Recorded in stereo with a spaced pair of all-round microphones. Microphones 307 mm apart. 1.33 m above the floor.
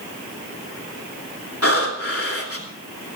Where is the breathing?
45° left (ahead or behind), 3 m.